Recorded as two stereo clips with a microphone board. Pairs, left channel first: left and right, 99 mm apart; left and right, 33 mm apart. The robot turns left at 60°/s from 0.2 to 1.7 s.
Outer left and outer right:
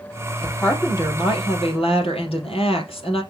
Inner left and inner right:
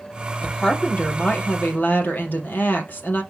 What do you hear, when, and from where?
0.4 s a woman speaking: 170° left, 4 m; by 3.2 s 95° left, 4 m